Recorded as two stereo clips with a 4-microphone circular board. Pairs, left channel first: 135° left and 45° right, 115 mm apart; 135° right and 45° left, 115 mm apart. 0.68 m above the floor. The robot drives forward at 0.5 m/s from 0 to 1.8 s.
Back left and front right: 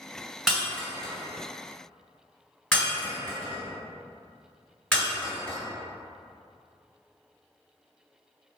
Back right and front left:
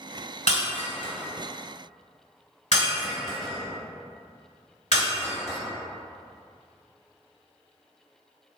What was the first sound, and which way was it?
Breaking glass, 130° right.